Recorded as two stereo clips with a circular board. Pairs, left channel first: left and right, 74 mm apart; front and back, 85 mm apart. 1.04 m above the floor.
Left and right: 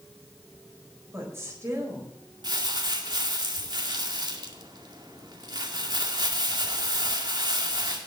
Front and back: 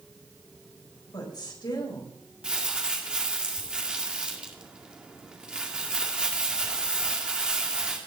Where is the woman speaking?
30° right, 4.5 m.